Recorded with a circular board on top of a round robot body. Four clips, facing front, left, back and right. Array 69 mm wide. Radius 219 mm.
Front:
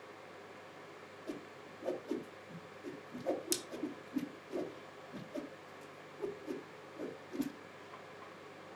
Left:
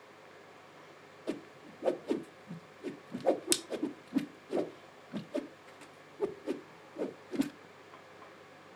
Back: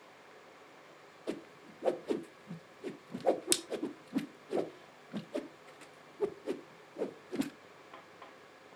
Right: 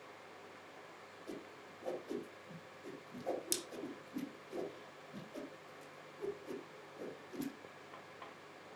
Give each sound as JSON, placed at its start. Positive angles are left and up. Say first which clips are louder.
{"t": 1.3, "sound": "a whoosh", "louder": "left 10 dB, back 5 dB", "azimuth_deg": 135, "distance_m": 0.8}